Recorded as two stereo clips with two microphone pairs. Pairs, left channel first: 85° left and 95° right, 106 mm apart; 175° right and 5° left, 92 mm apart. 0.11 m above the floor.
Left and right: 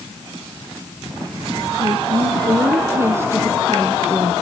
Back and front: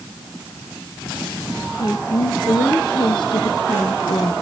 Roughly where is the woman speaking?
Behind right.